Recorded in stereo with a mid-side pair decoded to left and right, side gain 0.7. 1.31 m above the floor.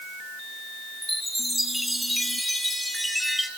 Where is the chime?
Straight ahead, 3.5 m.